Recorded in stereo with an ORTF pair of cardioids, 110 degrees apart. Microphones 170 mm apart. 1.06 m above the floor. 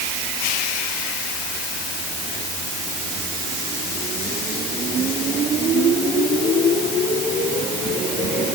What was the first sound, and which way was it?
Only background noise.